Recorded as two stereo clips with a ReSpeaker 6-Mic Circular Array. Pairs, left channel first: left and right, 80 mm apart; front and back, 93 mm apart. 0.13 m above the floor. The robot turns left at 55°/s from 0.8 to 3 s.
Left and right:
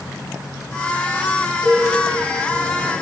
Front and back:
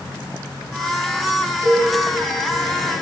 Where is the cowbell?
130° left, 1.8 m; by 1.9 s 115° left, 1.8 m.